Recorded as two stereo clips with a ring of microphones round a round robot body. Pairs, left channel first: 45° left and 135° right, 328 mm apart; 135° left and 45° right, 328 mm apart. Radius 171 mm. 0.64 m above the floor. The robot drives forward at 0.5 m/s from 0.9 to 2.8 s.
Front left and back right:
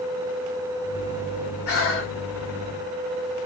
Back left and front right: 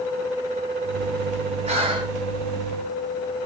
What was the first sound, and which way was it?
Breathing, 20° left.